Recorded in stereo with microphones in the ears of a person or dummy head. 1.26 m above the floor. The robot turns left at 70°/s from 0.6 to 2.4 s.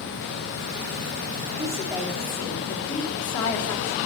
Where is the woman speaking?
145° right, 3 m; by 4.0 s 160° left, 3 m.